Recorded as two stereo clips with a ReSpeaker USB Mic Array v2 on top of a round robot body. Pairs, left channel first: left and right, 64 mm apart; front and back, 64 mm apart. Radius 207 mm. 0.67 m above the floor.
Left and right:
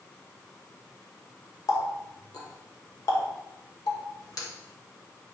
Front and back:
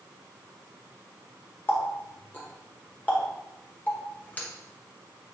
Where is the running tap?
65° left, 1.8 m.